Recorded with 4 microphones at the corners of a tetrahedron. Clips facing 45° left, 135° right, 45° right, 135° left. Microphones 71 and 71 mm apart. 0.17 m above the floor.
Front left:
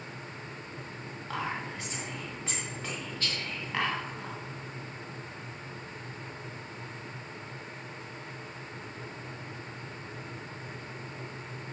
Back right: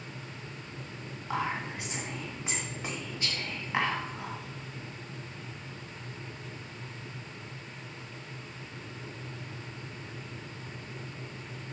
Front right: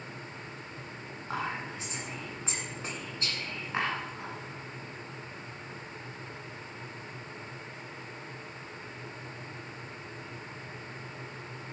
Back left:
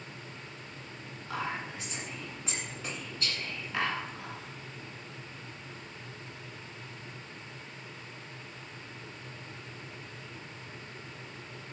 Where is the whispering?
75° right, 1.8 m.